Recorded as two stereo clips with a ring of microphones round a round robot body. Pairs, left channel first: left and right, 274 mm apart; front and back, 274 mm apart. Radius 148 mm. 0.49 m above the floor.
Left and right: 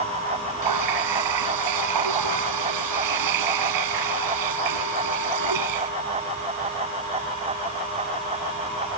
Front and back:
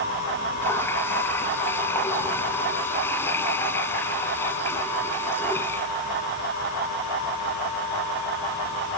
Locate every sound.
0.6 s a running tap: 85° right